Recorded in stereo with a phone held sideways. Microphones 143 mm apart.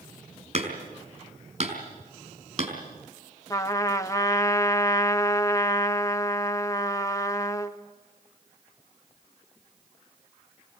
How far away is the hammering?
About 5 m.